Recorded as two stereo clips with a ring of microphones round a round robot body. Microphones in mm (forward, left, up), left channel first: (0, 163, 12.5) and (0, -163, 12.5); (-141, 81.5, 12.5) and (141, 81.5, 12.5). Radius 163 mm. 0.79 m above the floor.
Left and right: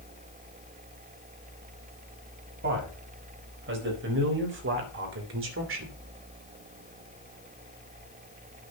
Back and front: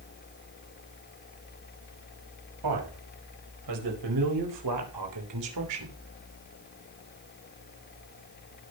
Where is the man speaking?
30° right, 5 m; by 6.0 s 35° right, 2.5 m.